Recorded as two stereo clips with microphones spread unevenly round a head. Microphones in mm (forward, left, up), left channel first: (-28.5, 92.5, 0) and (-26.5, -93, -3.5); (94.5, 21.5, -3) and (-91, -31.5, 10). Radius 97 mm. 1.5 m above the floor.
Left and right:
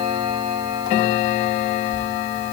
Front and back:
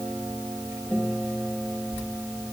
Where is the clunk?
I don't hear a clunk.